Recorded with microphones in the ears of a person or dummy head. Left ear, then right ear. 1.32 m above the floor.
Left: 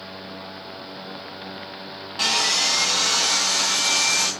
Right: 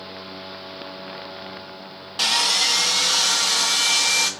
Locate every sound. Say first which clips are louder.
2.2 s sawing: right 1 dB; 20° right (ahead or behind), 1.8 m